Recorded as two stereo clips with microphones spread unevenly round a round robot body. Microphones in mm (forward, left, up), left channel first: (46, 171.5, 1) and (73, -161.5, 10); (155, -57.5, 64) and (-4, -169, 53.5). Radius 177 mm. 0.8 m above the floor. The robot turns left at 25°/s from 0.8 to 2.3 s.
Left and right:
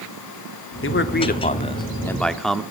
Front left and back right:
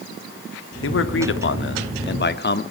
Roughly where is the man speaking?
Ahead left.